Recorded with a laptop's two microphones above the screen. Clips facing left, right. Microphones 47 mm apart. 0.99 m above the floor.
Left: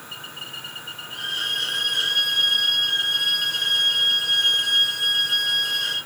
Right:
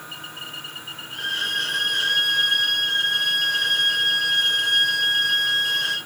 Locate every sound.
1.1 s a violin: centre (ahead or behind), 4 m